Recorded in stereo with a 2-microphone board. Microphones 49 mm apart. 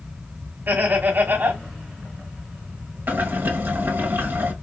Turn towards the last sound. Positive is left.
turn(degrees=-45)  # may be behind; listen again after turning